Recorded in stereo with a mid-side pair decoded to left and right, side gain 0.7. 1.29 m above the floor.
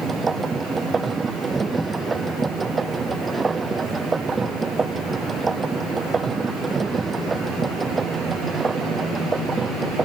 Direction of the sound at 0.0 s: 20° right.